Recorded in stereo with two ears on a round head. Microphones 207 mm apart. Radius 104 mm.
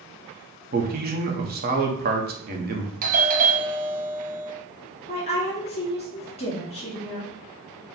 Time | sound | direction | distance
0.7 | a man speaking | 40° right (ahead or behind) | 0.9 m
3.0 | a doorbell | 35° right (ahead or behind) | 0.5 m
5.1 | a woman speaking | 30° left (ahead or behind) | 2 m